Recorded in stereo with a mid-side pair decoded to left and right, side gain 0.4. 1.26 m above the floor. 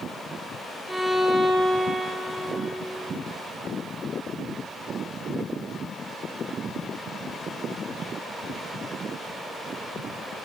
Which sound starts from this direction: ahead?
A violin, at 0.9 s.